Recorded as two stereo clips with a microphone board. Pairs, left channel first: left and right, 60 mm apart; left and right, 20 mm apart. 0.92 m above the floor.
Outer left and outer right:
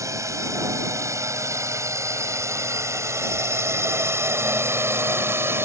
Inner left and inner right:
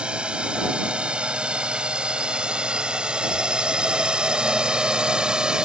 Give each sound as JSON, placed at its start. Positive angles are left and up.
{"t": 0.0, "sound": "a drone", "side_deg": -55}